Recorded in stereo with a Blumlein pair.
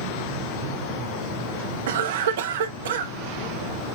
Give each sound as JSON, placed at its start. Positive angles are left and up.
{"t": 1.9, "sound": "a cough", "azimuth_deg": -60, "distance_m": 0.7}